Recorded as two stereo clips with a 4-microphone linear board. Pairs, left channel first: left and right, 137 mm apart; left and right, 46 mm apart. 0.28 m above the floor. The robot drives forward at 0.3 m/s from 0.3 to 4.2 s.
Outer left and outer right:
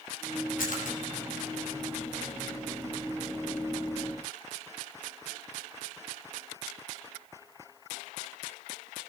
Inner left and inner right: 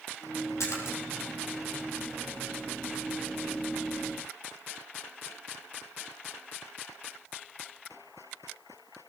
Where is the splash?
80° left, 5.5 m.